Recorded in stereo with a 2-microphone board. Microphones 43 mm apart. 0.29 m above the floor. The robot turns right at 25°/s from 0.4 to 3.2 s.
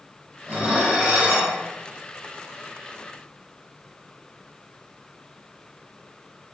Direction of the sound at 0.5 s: 25° right (ahead or behind).